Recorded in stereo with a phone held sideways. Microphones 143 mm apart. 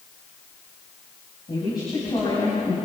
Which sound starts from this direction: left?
A woman speaking, at 1.5 s.